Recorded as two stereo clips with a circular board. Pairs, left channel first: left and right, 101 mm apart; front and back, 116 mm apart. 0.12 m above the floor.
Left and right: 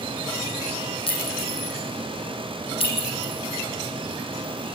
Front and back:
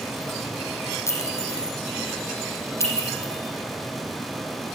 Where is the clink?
65° left, 4 m.